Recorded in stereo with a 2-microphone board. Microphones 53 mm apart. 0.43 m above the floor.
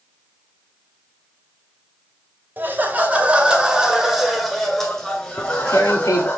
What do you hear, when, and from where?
2.6 s laughter: 35° right (ahead or behind), 1.9 m; by 6.4 s 25° left (ahead or behind), 2.5 m
5.4 s tearing paper: 80° left, 2 m